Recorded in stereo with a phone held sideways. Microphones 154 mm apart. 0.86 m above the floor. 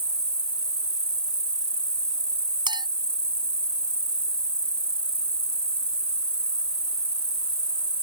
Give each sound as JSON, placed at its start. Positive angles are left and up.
{"t": 0.0, "sound": "an insect", "side_deg": -35}
{"t": 2.7, "sound": "a clink", "side_deg": -30}